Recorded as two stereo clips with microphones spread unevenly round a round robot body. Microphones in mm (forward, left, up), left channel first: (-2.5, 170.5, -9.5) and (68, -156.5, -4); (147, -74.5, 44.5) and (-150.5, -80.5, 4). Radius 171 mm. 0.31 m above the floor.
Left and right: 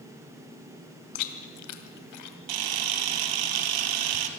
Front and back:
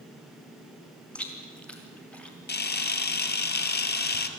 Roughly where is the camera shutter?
Ahead right.